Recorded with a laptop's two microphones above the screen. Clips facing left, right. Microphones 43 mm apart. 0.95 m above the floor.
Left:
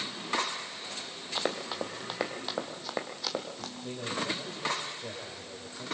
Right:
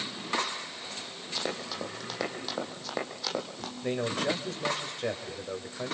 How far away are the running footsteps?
About 2 m.